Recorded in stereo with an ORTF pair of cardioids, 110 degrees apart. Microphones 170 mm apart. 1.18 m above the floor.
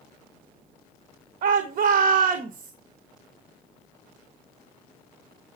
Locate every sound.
1.4 s a shout: 60° right, 1.3 m